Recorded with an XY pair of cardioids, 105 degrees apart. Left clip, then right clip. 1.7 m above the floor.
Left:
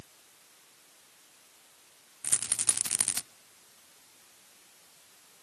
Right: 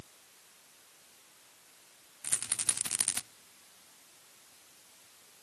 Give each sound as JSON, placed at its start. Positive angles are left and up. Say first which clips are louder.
{"t": 2.2, "sound": "a rattle", "louder": "left 3 dB", "azimuth_deg": 25, "distance_m": 0.6}